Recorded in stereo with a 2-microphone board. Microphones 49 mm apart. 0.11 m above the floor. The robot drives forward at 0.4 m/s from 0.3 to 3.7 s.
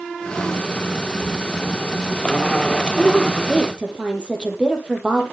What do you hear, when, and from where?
1.0 s a child speaking: 25° right (ahead or behind), 7 m
3.0 s a woman speaking: 20° right (ahead or behind), 3.5 m